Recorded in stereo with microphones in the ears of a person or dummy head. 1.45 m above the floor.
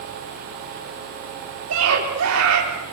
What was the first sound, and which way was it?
A scream, 85° right.